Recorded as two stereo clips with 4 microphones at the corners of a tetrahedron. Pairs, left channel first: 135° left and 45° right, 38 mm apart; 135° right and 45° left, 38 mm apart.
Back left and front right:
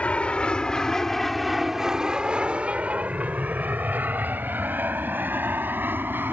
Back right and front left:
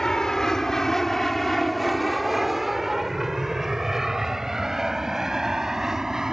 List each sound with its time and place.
0.0 s an aircraft: 155° left; by 6.3 s 30° right